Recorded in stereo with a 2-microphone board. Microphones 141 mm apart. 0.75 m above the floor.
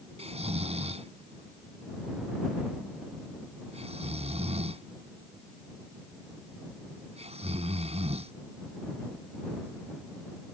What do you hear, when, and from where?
0.2 s snoring: 45° right (ahead or behind)